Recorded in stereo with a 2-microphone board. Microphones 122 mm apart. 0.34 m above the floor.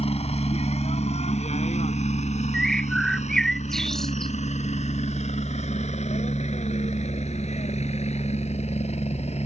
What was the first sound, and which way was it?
A helicopter, 55° left (ahead or behind).